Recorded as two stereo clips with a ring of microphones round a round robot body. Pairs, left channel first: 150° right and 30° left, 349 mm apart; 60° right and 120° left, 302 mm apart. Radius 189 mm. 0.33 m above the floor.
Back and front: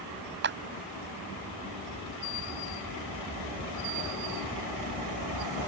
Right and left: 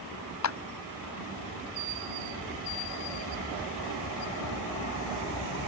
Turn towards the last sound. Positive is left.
turn(degrees=-30)